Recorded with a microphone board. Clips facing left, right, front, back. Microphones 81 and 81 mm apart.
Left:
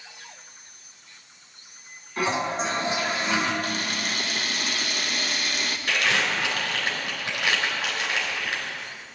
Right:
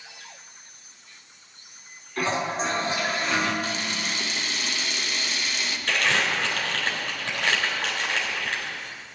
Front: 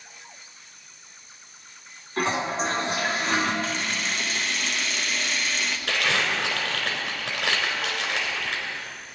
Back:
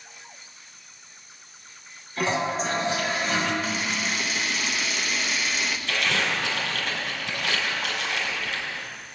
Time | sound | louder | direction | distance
2.2 | a toilet flushing | left 1 dB, even | 20° left | 3 m
3.6 | a camera shutter | left 1 dB, back 1 dB | 95° left | 0.9 m
5.9 | crumpling | right 1 dB, front 1 dB | 10° left | 3.5 m